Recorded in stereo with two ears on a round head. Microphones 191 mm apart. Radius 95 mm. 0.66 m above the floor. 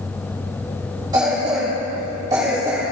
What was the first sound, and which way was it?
A cough, 20° right (ahead or behind).